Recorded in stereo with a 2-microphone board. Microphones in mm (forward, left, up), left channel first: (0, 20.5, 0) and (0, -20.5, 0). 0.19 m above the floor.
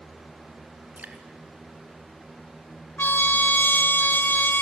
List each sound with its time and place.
1.0 s dripping: 40° right (ahead or behind), 2.5 m
3.0 s a trumpet: 50° left (ahead or behind), 0.7 m